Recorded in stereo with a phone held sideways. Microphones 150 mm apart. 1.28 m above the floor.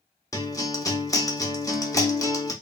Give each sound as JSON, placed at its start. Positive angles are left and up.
{"t": 0.3, "sound": "a guitar", "side_deg": 25, "distance_m": 0.6}